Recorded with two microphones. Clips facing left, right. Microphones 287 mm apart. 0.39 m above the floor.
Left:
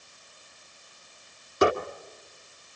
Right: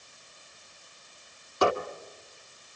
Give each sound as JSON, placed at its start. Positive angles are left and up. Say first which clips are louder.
{"t": 1.6, "sound": "a squeak", "louder": "left 3 dB", "side_deg": 20, "distance_m": 1.3}